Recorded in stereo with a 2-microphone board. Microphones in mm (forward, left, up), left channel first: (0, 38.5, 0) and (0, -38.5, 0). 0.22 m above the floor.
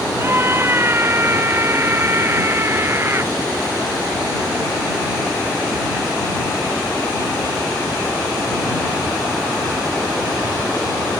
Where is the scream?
30° right (ahead or behind).